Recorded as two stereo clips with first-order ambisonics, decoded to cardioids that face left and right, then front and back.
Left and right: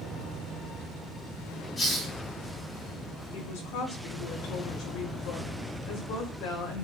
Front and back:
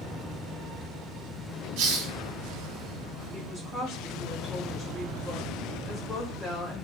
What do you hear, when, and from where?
1.8 s a hiss: 155° left, 2.5 m
3.3 s a woman speaking: 100° left, 5 m